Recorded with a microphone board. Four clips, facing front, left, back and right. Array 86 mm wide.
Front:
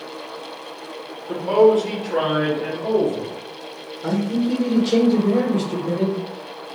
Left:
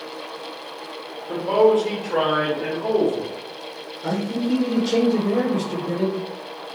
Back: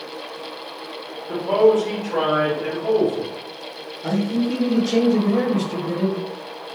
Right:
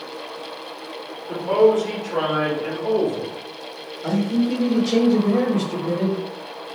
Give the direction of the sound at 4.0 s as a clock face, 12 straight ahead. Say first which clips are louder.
Right 3 dB, even; 12 o'clock.